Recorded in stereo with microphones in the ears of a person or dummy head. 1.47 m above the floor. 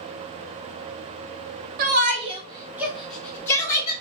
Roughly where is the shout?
Right.